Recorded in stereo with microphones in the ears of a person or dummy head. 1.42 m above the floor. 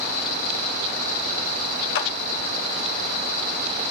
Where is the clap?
65° left (ahead or behind), 1.5 m.